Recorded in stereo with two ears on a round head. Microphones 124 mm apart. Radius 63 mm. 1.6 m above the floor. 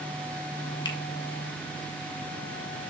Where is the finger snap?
30° left (ahead or behind), 1.4 m.